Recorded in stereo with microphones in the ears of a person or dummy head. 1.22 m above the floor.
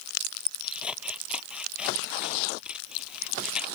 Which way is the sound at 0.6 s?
10° right (ahead or behind).